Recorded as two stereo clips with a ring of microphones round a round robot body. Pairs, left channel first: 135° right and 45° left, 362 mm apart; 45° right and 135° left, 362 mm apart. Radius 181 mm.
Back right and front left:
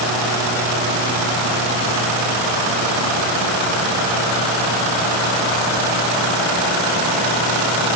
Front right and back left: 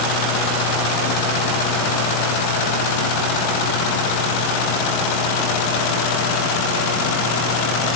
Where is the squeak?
I don't hear a squeak.